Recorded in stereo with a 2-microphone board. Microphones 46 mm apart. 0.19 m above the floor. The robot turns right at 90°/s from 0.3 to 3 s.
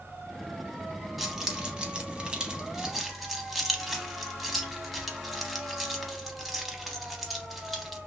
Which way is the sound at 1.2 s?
5° right (ahead or behind).